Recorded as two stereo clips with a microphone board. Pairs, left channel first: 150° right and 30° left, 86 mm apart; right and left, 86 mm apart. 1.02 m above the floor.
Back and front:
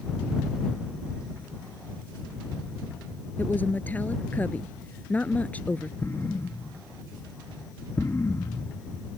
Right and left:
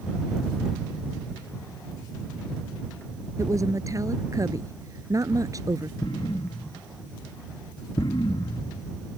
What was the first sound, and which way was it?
A woman speaking, 140° left.